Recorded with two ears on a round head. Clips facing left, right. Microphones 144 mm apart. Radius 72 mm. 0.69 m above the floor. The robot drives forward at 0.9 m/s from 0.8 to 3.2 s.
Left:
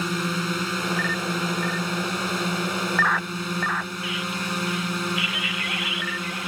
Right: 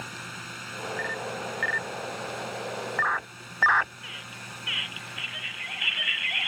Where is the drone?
75° left (ahead or behind); by 6.5 s 80° left.